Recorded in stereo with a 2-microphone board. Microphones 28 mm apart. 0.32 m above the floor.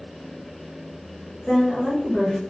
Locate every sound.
1.5 s a woman speaking: 5° right (ahead or behind), 0.9 m